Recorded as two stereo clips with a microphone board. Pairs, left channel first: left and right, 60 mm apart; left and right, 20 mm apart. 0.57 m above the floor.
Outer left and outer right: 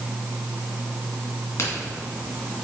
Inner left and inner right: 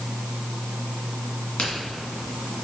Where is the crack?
45° left (ahead or behind), 2.5 m.